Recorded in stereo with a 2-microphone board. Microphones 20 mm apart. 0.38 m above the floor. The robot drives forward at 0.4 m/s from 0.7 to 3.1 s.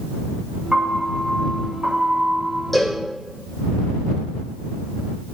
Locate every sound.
0.7 s a piano: 30° right (ahead or behind), 3.5 m; by 2.6 s 25° right (ahead or behind), 4 m
2.7 s a cowbell: 5° left (ahead or behind), 5 m